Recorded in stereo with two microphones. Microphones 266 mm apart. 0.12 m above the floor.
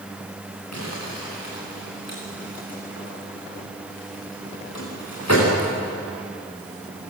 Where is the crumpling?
80° left, 9.5 m.